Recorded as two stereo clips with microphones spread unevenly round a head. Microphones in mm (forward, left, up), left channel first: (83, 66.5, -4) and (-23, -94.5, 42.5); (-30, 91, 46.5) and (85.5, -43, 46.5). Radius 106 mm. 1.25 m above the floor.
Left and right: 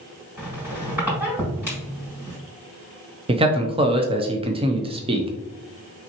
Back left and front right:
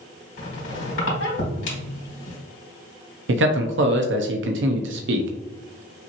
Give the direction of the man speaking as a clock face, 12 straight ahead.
2 o'clock.